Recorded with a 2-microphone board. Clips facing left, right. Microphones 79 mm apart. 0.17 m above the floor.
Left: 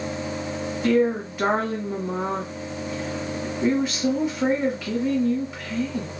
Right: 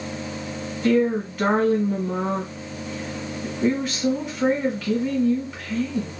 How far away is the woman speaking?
About 1.3 m.